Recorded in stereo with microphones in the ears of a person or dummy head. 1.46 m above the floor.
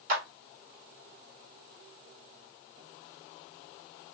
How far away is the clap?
About 1.6 m.